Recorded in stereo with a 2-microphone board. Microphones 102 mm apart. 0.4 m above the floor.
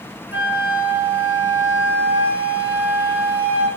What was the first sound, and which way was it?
A flute, 20° right (ahead or behind).